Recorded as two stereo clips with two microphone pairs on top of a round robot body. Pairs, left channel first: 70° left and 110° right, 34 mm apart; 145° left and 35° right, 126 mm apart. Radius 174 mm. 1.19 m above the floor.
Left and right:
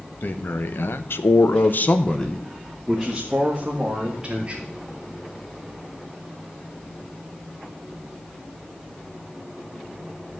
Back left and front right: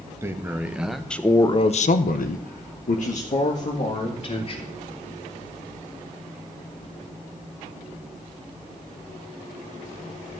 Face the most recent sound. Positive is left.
turn(degrees=180)